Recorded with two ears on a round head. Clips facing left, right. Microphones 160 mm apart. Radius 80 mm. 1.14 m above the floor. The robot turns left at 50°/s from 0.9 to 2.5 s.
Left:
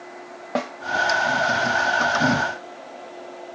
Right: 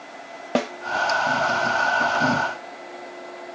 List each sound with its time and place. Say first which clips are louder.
0.6 s a snare drum: right 3 dB; 35° right (ahead or behind), 0.6 m